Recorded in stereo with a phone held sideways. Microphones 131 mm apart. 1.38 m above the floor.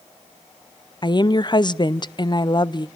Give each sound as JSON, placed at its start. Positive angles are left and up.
{"t": 1.0, "sound": "a woman speaking", "side_deg": 35, "distance_m": 0.5}